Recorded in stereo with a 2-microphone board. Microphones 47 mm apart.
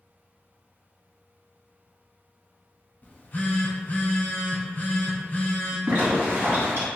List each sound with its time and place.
3.0 s a phone buzzing: 40° left (ahead or behind), 0.9 m
5.9 s a zipper: 55° right (ahead or behind), 1.7 m